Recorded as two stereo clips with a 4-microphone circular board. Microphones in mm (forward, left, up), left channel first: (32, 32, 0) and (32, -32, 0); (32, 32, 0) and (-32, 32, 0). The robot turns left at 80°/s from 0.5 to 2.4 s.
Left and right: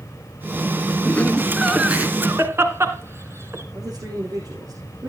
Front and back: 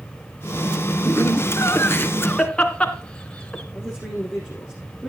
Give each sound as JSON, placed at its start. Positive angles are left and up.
{"t": 1.1, "sound": "laughter", "azimuth_deg": 40, "distance_m": 2.0}
{"t": 3.7, "sound": "a man speaking", "azimuth_deg": -85, "distance_m": 7.0}